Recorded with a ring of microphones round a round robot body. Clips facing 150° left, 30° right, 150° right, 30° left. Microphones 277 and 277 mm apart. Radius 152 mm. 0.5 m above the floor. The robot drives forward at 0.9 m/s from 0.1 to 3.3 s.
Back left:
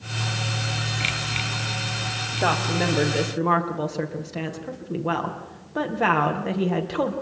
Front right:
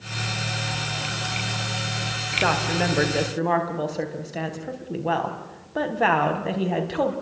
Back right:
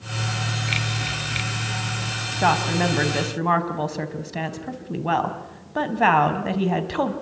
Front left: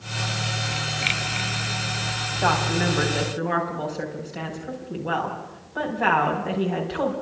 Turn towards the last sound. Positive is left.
turn(degrees=-125)